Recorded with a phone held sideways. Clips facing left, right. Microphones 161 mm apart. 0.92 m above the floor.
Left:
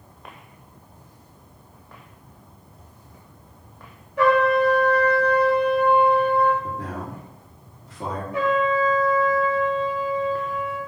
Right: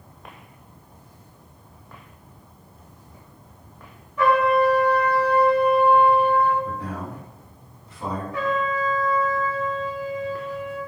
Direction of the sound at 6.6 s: 75° left (ahead or behind).